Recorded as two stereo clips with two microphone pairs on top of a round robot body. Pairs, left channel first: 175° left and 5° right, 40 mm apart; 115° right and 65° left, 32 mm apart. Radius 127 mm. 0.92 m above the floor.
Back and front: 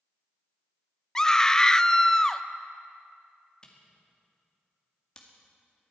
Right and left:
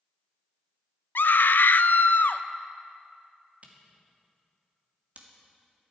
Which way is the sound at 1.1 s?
110° right.